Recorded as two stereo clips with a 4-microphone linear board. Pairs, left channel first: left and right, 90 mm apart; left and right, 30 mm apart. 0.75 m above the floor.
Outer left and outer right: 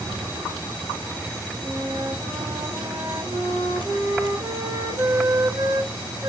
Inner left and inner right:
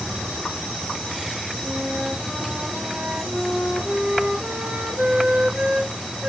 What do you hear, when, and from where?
1.6 s a flute: 35° right (ahead or behind), 1.8 m